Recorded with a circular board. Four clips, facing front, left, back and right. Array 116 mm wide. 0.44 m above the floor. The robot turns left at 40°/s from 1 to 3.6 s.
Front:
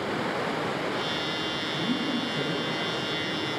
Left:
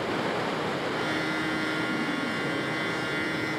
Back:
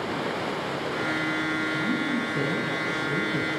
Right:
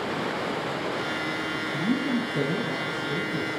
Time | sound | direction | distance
1.7 | a woman speaking | 85° right | 5.5 m